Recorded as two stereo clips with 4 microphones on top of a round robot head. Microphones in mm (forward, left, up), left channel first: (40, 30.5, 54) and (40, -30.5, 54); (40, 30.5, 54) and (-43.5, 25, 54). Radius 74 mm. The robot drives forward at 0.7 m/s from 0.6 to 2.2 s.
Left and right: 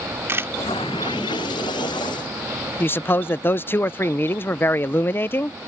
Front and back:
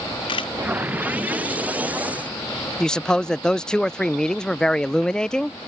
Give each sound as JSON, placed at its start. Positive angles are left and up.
{"t": 0.3, "sound": "a camera shutter", "azimuth_deg": -35}
{"t": 2.8, "sound": "a man speaking", "azimuth_deg": 80}